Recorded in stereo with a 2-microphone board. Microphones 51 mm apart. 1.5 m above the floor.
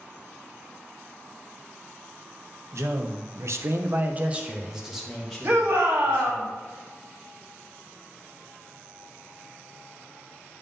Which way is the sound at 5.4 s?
60° right (ahead or behind).